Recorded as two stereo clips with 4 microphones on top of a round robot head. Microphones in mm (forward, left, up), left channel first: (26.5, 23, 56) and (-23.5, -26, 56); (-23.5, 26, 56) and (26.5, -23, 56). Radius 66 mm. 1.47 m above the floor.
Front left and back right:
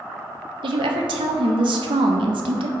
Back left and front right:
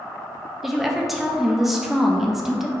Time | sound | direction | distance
0.6 | a woman speaking | 130° right | 0.5 m